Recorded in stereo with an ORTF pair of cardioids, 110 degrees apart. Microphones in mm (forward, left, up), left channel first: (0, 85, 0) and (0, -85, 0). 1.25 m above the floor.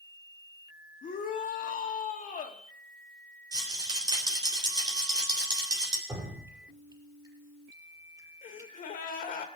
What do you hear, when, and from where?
1.0 s a shout: 50° left, 2 m
3.5 s a rattle: 25° right, 3.5 m
6.1 s dripping: 20° right, 5.5 m
8.4 s a gasp: 55° left, 2.0 m